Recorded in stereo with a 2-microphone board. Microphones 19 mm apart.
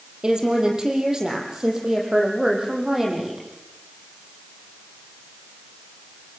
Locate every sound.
0.2 s a woman speaking: 40° right (ahead or behind), 5 m; by 3.5 s 30° right (ahead or behind), 7 m